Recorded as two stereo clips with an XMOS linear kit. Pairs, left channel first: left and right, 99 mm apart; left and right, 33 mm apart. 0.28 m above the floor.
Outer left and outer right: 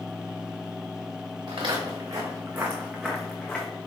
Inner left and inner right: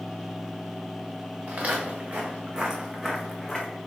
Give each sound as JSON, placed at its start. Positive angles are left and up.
{"t": 1.5, "sound": "footsteps", "side_deg": -55, "distance_m": 1.3}